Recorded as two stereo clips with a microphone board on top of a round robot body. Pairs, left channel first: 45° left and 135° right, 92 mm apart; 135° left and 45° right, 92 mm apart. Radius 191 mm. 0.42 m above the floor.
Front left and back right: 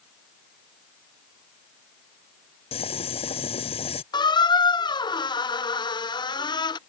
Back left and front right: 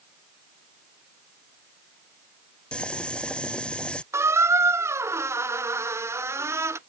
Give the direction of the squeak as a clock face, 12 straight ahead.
12 o'clock.